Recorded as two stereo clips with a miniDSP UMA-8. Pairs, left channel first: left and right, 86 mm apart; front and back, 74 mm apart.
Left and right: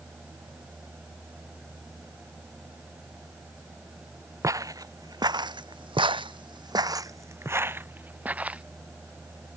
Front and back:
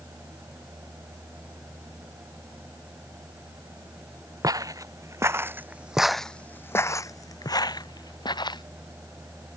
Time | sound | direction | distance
4.4 | footsteps | 145° right | ?